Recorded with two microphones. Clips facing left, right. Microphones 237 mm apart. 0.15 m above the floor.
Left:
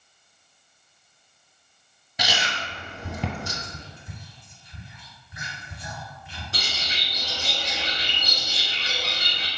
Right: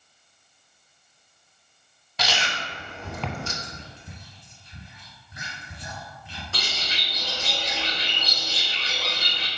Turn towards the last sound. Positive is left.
turn(degrees=15)  # may be behind; listen again after turning